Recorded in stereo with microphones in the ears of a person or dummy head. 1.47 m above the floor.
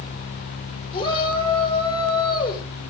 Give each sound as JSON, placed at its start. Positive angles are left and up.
{"t": 0.9, "sound": "a shout", "side_deg": 35, "distance_m": 5.5}